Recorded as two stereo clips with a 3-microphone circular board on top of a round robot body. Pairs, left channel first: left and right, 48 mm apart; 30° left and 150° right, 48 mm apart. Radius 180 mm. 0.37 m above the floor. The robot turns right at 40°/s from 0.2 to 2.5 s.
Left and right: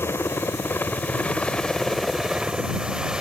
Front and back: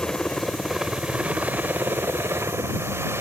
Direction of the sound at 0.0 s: 105° left.